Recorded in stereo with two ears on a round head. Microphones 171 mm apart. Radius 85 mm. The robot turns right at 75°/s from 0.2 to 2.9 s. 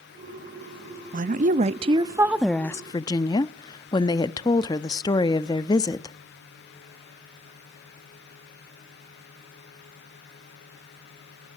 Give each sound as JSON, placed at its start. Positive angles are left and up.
{"t": 1.1, "sound": "a woman speaking", "azimuth_deg": -100, "distance_m": 0.6}